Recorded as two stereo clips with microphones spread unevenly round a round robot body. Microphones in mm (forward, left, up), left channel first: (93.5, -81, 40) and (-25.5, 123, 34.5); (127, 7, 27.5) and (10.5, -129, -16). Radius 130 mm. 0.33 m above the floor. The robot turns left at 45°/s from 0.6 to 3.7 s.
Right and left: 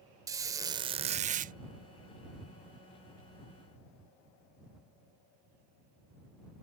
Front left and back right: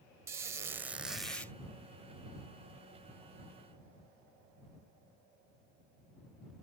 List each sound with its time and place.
0.3 s a squeak: 175° right; by 1.5 s 145° left